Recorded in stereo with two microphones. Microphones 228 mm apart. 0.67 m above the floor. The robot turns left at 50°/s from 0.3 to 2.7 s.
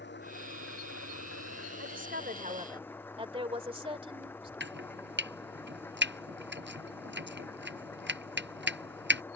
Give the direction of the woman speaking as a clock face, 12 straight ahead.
4 o'clock.